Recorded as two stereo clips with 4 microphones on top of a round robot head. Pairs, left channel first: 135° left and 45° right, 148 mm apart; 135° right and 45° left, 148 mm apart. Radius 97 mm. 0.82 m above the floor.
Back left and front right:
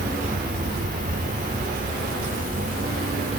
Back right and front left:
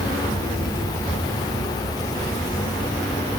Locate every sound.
0.0 s an insect: 70° right